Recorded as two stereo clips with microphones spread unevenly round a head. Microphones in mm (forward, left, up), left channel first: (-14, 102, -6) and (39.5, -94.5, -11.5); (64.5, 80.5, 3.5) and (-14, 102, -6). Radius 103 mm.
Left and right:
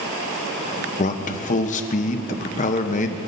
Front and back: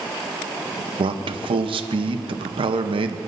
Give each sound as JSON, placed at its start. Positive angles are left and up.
{"t": 1.0, "sound": "a man speaking", "azimuth_deg": 165, "distance_m": 0.8}